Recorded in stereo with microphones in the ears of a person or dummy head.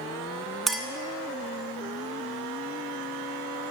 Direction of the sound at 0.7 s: Centre (ahead or behind).